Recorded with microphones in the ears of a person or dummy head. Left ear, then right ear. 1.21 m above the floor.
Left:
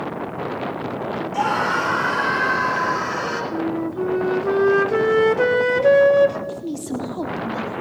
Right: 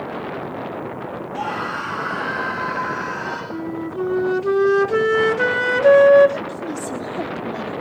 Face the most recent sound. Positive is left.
turn(degrees=-15)  # may be behind; listen again after turning